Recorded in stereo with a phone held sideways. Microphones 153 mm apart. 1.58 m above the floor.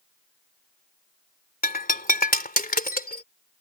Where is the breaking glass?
70° left (ahead or behind).